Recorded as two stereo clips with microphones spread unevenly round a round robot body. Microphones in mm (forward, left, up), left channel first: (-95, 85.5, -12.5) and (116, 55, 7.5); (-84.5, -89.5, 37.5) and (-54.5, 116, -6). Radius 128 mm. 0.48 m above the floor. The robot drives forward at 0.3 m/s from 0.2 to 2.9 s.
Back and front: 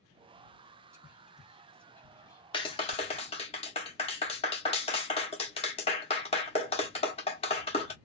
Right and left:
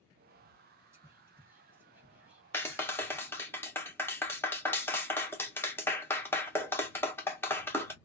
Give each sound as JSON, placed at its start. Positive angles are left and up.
{"t": 0.9, "sound": "whispering", "azimuth_deg": 65, "distance_m": 0.8}
{"t": 2.5, "sound": "a clap", "azimuth_deg": 170, "distance_m": 1.0}